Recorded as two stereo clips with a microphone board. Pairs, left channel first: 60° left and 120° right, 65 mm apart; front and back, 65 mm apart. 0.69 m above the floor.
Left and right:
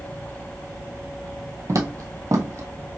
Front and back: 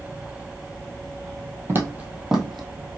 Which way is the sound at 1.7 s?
140° right.